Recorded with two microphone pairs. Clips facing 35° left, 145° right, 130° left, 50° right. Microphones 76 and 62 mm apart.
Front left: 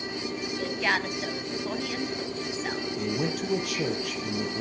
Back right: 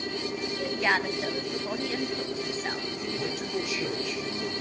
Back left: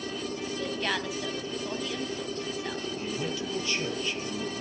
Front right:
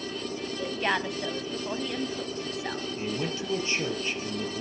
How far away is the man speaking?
About 4 m.